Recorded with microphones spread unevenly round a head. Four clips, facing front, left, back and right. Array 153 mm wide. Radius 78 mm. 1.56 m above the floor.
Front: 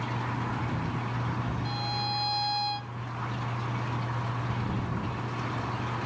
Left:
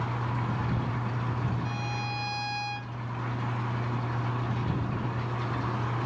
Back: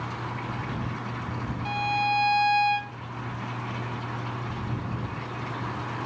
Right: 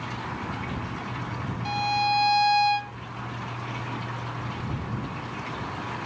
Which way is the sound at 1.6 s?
130° right.